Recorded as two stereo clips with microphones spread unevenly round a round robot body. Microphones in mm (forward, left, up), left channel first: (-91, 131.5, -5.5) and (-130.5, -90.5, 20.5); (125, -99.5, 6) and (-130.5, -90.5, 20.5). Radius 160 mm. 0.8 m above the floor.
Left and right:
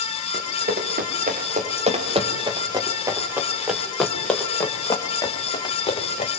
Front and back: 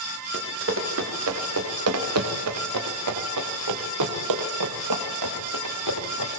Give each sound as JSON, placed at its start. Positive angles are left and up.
{"t": 0.3, "sound": "running footsteps", "azimuth_deg": -145, "distance_m": 5.5}